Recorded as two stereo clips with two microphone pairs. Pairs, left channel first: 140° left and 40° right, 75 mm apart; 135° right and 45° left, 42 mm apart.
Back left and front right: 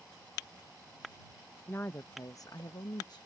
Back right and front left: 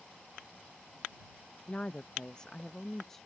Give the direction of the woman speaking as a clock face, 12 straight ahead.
6 o'clock.